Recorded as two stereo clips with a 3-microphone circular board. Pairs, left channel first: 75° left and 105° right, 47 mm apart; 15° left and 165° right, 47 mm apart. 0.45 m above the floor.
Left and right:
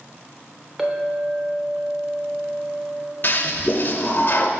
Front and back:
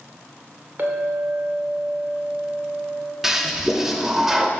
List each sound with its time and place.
0.8 s a clink: straight behind, 1.0 m
3.2 s a toilet flushing: 115° left, 0.6 m